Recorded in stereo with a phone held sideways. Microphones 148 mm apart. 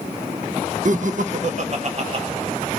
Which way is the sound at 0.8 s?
60° right (ahead or behind).